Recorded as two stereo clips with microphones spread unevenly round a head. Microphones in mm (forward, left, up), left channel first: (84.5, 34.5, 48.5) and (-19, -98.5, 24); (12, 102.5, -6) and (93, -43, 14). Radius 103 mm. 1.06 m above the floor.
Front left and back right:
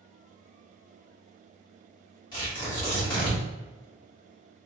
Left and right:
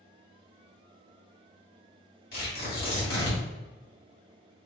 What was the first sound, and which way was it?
Tearing paper, 125° left.